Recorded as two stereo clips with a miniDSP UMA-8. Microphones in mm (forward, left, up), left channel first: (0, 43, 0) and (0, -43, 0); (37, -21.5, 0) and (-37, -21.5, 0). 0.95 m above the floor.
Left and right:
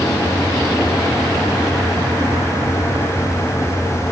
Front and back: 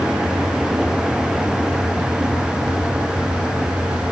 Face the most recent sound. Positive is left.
No sound to turn to.